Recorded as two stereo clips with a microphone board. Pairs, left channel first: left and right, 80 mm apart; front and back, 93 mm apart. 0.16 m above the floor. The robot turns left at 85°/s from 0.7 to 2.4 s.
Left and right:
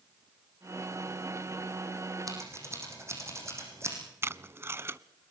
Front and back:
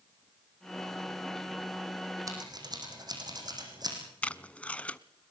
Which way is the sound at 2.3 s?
130° right.